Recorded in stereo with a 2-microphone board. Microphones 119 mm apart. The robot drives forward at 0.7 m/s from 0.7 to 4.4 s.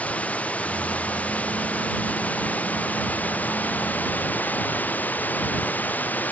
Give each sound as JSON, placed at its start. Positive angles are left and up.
{"t": 0.0, "sound": "running water", "side_deg": 10}